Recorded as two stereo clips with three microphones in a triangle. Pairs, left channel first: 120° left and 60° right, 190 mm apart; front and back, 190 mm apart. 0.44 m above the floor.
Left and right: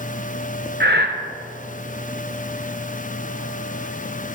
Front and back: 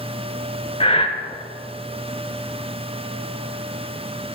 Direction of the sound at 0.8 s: 60° right.